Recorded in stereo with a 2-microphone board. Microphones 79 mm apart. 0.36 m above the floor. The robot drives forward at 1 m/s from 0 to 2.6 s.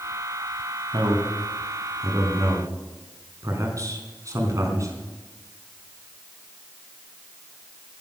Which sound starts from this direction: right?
A man speaking, at 0.9 s.